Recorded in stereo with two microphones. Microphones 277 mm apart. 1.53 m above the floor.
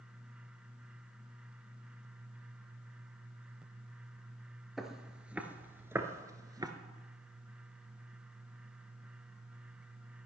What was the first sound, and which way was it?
Footsteps, centre (ahead or behind).